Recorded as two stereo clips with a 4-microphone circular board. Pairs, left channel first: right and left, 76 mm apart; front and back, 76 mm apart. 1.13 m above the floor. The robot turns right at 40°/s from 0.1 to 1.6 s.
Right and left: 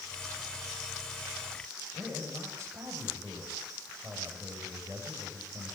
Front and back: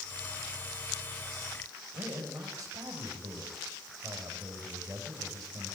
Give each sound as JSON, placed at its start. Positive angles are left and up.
{"t": 1.9, "sound": "a man speaking", "azimuth_deg": 145, "distance_m": 6.0}